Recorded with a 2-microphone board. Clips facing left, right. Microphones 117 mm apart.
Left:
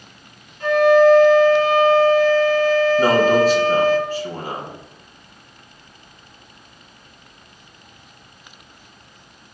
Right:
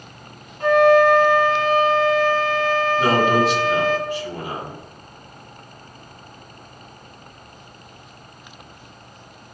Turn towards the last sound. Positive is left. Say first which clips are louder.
# left 1 dB
turn(degrees=40)  # may be behind; listen again after turning